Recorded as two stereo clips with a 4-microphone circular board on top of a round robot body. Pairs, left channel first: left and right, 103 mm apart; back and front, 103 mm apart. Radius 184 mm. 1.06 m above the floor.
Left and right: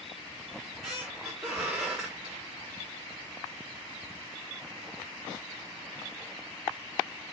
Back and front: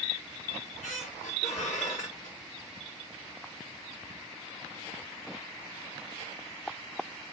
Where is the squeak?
175° right, 0.8 m.